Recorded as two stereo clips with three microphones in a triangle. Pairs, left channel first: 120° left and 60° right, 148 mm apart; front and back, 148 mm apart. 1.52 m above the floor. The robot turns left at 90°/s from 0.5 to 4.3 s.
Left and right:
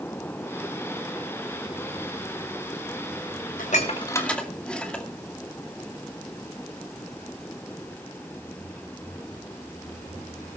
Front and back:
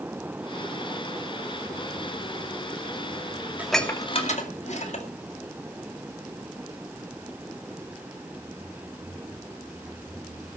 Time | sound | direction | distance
3.6 | dishes clattering | 100° left | 2 m